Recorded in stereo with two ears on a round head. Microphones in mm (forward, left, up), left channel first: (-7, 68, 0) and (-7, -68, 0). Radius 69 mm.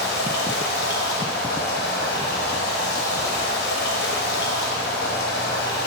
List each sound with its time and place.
0.0 s running water: 70° left (ahead or behind), 1.1 m